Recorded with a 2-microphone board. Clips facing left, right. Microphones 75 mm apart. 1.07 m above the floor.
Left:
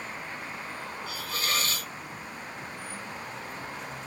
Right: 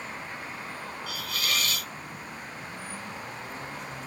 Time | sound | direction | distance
1.1 | a hiss | 35° left (ahead or behind) | 0.6 m